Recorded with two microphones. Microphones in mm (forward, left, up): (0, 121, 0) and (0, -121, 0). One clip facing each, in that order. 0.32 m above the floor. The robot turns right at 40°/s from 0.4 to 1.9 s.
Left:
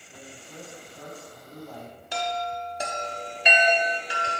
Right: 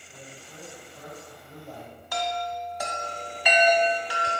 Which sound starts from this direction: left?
A chime, at 2.1 s.